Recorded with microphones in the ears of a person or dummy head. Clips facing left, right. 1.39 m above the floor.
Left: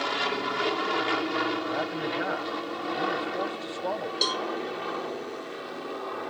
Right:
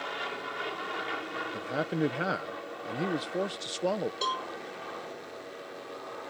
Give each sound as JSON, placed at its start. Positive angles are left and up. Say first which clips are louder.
{"t": 0.0, "sound": "an aircraft", "louder": "left 8 dB", "side_deg": 70}
{"t": 1.5, "sound": "a man speaking", "louder": "left 2 dB", "side_deg": -40}
{"t": 4.2, "sound": "a cowbell", "louder": "left 5 dB", "side_deg": 25}